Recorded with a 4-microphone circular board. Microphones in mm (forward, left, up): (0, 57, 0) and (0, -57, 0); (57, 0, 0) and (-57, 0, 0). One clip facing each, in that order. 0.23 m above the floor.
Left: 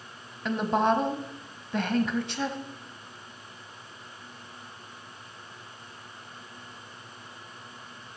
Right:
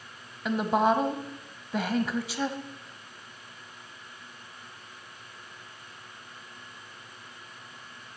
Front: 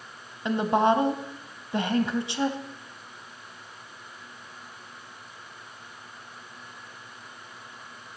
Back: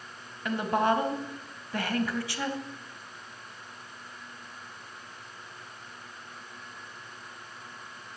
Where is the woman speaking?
15° right, 1.2 m.